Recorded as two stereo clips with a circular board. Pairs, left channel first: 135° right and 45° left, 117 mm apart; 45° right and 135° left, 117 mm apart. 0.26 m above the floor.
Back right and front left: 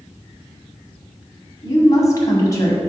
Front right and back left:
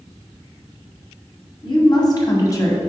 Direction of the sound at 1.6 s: 80° right.